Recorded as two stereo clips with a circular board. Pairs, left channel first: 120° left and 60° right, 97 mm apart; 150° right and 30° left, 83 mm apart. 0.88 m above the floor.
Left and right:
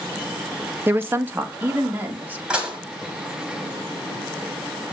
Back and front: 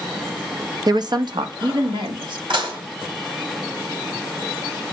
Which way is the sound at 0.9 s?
5° left.